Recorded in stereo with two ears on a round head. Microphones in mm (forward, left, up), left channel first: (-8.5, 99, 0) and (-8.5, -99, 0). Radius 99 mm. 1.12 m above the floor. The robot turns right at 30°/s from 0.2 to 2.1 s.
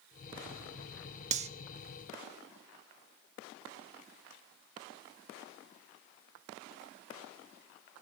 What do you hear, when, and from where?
1.3 s cutlery clinking: 35° right (ahead or behind), 0.7 m; by 1.5 s 30° right (ahead or behind), 0.7 m